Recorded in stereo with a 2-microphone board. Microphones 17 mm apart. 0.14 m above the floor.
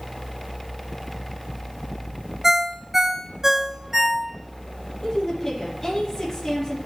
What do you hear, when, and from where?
2.4 s a ringtone: 25° right (ahead or behind), 0.7 m
5.0 s a woman speaking: 20° left (ahead or behind), 4.5 m